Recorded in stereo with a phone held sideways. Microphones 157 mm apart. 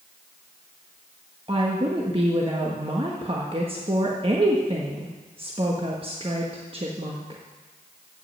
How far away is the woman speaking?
About 1.2 m.